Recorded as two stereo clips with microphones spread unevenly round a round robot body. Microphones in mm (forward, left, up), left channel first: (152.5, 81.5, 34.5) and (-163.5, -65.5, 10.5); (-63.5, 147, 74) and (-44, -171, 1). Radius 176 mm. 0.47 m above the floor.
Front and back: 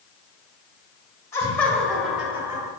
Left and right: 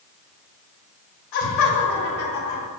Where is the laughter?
110° left, 2.5 m; by 2.7 s 125° left, 2.5 m.